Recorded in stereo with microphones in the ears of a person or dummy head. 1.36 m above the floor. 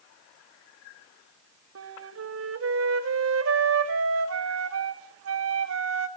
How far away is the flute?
About 1.7 m.